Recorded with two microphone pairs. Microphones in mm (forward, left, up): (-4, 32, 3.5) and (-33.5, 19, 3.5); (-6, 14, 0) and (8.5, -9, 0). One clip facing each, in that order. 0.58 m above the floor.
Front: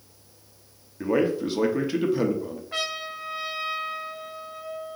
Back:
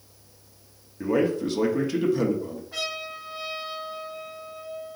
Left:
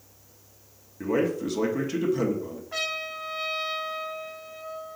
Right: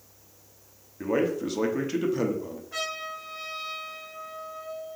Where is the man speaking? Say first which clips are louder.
Even, even; 5° left, 0.6 m.